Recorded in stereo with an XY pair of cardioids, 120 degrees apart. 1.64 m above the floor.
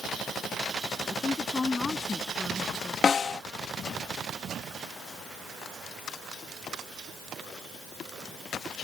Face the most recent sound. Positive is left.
turn(degrees=35)